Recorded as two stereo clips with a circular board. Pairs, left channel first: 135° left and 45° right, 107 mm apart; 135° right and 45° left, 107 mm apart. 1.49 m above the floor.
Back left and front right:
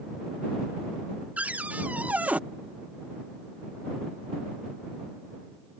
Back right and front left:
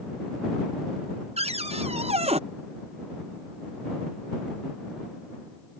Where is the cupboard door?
30° left.